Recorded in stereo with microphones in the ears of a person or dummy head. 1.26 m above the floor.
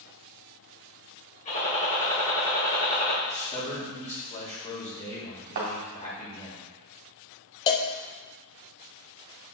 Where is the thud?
45° right (ahead or behind), 1.9 m.